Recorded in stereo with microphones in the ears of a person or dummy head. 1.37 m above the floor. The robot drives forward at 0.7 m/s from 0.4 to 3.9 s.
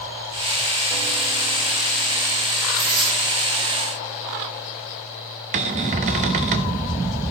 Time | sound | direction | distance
2.8 | tearing paper | 25° right (ahead or behind) | 3 m
5.5 | a cupboard door | 40° right (ahead or behind) | 0.6 m